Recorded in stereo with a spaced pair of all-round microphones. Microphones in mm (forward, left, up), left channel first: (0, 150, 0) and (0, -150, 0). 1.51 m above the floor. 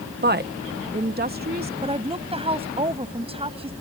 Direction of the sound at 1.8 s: 20° right (ahead or behind).